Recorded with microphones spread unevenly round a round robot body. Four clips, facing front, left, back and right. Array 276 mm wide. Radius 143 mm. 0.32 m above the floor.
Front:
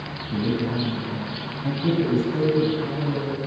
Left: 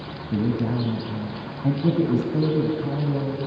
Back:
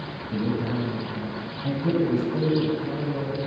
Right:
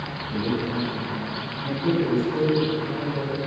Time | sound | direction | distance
0.3 | a man speaking | 90° left | 3 m